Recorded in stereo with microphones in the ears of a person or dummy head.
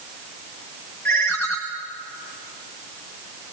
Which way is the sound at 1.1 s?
5° left (ahead or behind).